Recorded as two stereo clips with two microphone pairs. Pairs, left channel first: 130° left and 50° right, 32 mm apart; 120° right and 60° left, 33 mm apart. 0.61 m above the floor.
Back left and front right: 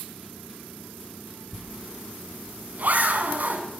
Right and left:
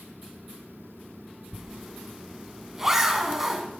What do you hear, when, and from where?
1.5 s a zipper: 20° right, 1.7 m